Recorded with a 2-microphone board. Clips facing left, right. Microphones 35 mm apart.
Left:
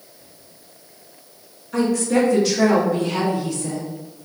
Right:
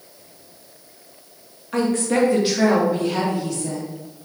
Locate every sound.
1.7 s a woman speaking: 50° right (ahead or behind), 1.3 m; by 3.9 s 10° left (ahead or behind), 2 m